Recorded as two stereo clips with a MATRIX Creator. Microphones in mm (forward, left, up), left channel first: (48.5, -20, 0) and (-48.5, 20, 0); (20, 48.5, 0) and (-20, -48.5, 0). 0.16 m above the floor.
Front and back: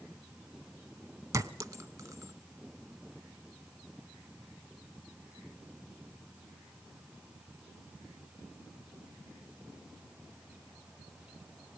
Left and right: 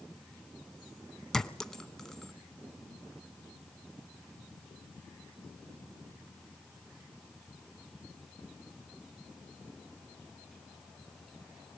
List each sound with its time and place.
1.3 s a clink: 150° left, 0.7 m